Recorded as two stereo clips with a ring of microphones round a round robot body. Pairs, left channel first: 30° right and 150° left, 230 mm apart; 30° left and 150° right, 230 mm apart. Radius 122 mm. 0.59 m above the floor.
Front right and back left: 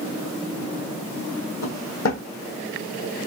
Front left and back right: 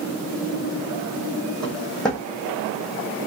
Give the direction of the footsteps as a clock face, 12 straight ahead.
2 o'clock.